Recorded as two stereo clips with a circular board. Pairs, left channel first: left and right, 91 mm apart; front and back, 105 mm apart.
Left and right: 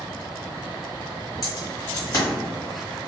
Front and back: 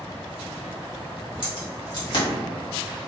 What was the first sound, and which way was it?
Keys jangling, 35° left.